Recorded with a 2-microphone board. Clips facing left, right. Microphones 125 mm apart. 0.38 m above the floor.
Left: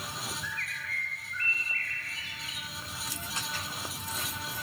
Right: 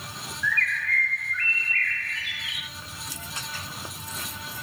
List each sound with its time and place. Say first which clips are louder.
0.4 s a bird: right 10 dB; 85° right, 1.3 m